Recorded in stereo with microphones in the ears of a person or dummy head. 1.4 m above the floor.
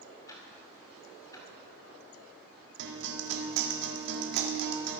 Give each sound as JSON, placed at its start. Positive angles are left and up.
{"t": 0.3, "sound": "ticking", "side_deg": 20, "distance_m": 2.5}
{"t": 2.8, "sound": "a guitar", "side_deg": -70, "distance_m": 1.7}